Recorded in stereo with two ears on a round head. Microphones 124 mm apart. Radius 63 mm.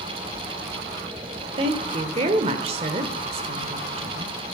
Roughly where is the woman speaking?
Right.